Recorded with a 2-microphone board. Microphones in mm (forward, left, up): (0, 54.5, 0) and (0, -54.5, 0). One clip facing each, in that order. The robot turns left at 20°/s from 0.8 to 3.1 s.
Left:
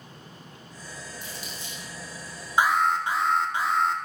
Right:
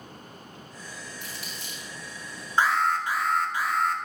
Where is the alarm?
15° left (ahead or behind), 0.7 m; by 4.0 s 25° left (ahead or behind), 0.7 m.